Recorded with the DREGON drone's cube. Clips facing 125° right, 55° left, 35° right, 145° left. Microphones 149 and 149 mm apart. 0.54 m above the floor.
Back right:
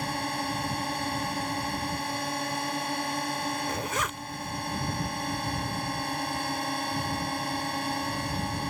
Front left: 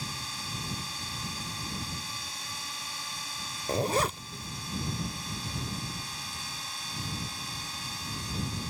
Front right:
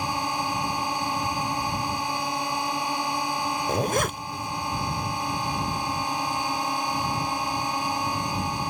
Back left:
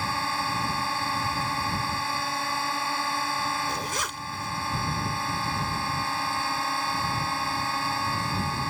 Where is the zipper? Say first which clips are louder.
Front left 4 dB, front right 8 dB; straight ahead.